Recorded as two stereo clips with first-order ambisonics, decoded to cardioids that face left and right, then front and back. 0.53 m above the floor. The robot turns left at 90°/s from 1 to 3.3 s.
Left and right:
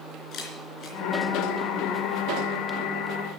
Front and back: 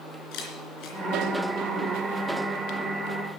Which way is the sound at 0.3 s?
35° left.